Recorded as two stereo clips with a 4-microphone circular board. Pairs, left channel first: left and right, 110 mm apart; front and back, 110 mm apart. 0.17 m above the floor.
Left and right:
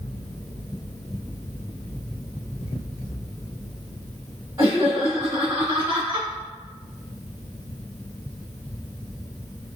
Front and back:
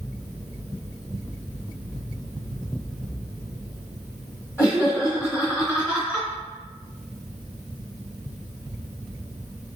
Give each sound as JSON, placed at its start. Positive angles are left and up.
{"t": 4.6, "sound": "laughter", "azimuth_deg": -45, "distance_m": 1.6}